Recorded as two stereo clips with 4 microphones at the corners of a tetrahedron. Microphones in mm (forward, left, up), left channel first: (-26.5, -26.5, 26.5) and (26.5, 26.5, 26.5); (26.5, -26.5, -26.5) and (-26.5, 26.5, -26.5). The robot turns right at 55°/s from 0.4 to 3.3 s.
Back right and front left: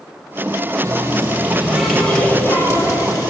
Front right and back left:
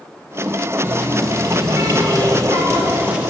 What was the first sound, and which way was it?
A running tap, 80° left.